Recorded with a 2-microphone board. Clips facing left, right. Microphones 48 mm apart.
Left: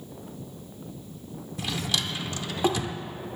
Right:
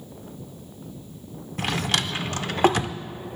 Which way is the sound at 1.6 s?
50° right (ahead or behind).